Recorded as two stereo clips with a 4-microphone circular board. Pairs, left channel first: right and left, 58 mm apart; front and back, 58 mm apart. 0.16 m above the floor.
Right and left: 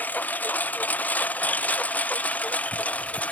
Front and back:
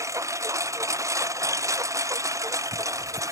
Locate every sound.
0.0 s a lawn mower: 150° right; by 3.3 s 155° right